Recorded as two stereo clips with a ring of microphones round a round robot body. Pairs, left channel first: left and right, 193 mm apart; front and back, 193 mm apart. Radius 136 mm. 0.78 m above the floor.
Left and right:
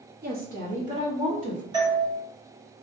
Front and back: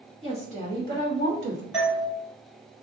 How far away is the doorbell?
About 1.5 m.